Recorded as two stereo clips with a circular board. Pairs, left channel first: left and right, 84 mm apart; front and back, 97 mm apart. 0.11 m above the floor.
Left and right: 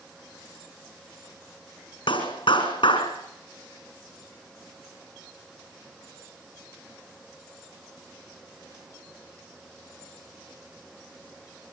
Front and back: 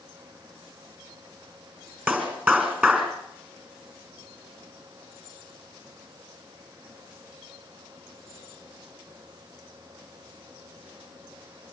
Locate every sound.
2.1 s a clap: 105° left, 5 m